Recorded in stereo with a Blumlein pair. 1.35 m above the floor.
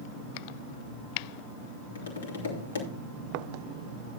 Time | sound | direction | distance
1.9 | tapping | 70° left | 3 m